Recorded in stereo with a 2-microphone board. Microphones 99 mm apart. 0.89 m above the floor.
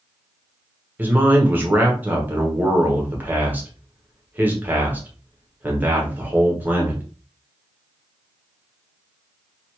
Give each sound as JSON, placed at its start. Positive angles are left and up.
{"t": 1.0, "sound": "a man speaking", "side_deg": -20, "distance_m": 1.1}